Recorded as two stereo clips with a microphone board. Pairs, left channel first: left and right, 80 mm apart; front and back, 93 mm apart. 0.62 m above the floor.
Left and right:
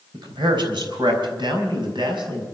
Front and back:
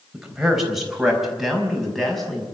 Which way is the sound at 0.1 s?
100° right.